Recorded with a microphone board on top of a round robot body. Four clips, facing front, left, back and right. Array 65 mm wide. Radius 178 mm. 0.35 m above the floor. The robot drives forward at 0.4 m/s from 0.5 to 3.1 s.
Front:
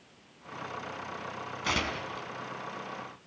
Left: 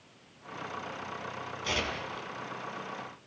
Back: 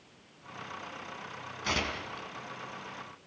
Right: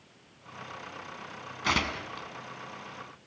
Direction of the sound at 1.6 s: 80° right.